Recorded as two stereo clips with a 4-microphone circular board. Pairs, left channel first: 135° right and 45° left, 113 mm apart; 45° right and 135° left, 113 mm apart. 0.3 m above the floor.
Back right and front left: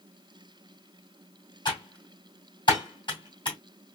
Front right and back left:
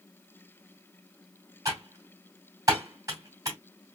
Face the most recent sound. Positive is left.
turn(degrees=-175)